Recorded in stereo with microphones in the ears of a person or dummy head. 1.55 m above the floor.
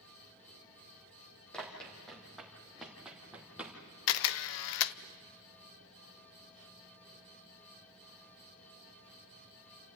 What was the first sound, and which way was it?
Running footsteps, 5° left (ahead or behind).